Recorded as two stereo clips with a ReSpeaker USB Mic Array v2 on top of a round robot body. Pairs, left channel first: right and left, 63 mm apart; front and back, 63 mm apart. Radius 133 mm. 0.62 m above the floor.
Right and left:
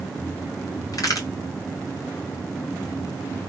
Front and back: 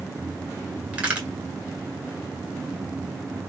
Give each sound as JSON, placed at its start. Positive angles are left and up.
{"t": 0.9, "sound": "a crack", "azimuth_deg": -115, "distance_m": 2.0}